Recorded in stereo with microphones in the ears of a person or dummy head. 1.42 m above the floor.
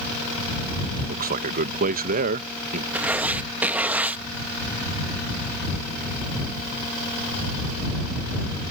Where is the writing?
15° right (ahead or behind).